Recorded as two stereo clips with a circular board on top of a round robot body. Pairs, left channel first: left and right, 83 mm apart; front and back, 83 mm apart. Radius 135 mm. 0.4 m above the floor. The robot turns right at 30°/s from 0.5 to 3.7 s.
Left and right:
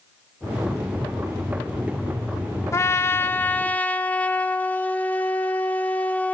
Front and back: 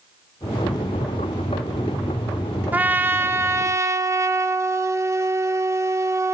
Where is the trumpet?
120° left, 0.9 m; by 6.4 s 150° left, 0.9 m.